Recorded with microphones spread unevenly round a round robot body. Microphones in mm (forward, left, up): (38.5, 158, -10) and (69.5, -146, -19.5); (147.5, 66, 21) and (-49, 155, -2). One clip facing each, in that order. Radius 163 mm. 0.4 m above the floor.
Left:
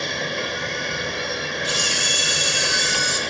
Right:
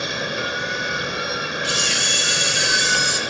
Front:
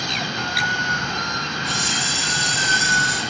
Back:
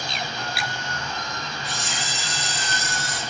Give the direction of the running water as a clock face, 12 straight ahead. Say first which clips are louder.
Right 1 dB, front 4 dB; 12 o'clock.